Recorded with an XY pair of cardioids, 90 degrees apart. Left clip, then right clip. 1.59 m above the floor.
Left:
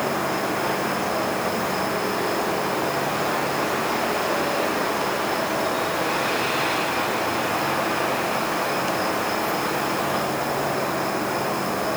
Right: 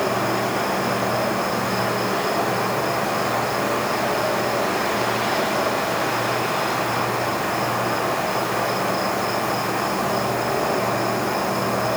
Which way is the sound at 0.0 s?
55° right.